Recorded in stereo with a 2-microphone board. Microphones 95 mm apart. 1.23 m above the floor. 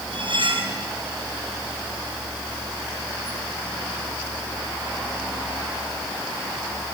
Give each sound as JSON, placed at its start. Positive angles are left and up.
{"t": 0.1, "sound": "cutlery clinking", "side_deg": -60, "distance_m": 4.5}